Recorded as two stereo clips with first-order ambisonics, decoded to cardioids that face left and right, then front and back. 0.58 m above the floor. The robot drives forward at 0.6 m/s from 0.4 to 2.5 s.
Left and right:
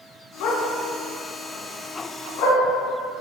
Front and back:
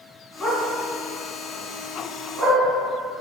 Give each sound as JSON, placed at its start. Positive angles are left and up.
{"t": 0.4, "sound": "a dog barking", "azimuth_deg": 75, "distance_m": 2.5}